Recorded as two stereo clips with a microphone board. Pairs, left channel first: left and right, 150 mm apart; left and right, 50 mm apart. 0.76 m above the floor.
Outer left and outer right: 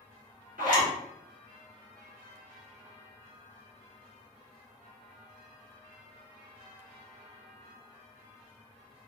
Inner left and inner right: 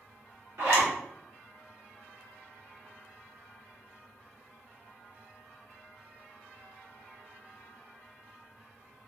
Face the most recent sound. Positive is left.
turn(degrees=-65)  # may be behind; listen again after turning